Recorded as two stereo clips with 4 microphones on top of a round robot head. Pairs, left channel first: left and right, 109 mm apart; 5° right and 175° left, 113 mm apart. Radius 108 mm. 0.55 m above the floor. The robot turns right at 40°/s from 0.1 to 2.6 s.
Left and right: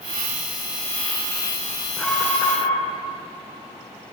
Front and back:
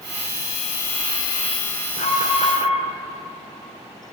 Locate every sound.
2.0 s an alarm: straight ahead, 1.8 m; by 2.9 s 25° left, 1.8 m